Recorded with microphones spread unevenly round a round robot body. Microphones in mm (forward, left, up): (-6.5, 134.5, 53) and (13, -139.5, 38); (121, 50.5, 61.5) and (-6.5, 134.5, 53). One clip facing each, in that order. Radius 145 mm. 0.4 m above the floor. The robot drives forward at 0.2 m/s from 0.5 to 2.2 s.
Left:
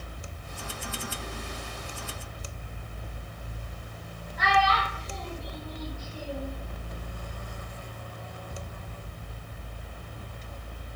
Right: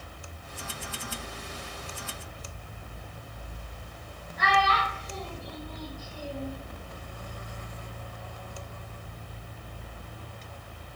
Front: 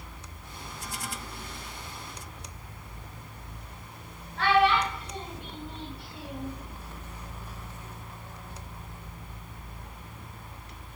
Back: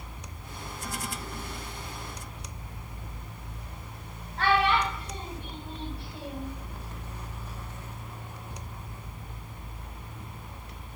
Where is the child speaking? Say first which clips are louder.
Left 1 dB, front 2 dB; 95° left, 1.2 m.